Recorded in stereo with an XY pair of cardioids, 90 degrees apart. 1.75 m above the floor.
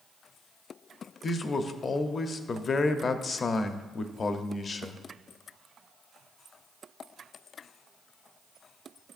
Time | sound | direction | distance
1.2 | a man speaking | 45° left | 0.8 m